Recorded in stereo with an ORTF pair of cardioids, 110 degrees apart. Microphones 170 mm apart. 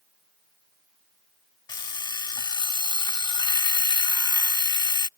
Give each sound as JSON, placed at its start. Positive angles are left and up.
{"t": 1.7, "sound": "an alarm clock", "azimuth_deg": 30}